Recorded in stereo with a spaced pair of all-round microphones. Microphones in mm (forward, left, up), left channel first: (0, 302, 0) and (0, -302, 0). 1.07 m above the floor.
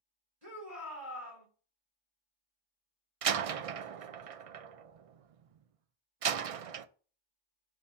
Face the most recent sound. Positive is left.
turn(degrees=-65)  # may be behind; listen again after turning